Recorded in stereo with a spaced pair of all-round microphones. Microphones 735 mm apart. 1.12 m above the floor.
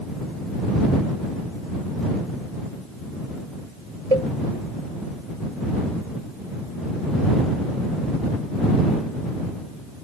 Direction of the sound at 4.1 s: 55° right (ahead or behind).